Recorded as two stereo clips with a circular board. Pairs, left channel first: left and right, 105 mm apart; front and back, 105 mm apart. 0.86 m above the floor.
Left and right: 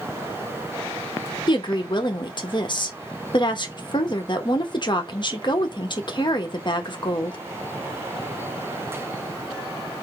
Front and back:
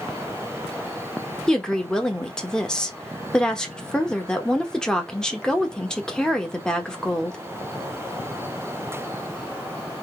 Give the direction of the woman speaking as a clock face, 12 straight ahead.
9 o'clock.